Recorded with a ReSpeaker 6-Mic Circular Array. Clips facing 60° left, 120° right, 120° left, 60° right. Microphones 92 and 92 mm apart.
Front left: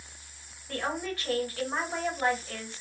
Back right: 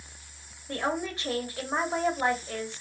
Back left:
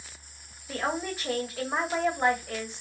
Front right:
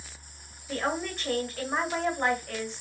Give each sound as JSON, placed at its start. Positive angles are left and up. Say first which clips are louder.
{"t": 0.7, "sound": "a woman speaking", "louder": "back right 2 dB, even", "azimuth_deg": -160, "distance_m": 1.4}